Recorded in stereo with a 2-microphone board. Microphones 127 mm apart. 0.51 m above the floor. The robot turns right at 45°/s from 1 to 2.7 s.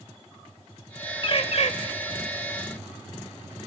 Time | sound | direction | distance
1.2 | a bird | 40° left (ahead or behind) | 0.8 m